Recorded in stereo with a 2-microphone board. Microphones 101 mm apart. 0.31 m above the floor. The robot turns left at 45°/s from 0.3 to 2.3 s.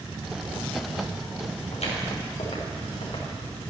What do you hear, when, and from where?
1.7 s footsteps: 75° left (ahead or behind), 4 m; by 3.2 s 65° left (ahead or behind), 4 m